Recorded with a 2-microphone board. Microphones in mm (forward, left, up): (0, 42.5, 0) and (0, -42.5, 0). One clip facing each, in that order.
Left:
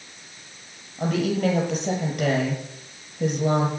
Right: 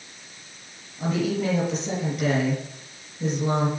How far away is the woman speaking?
About 6 m.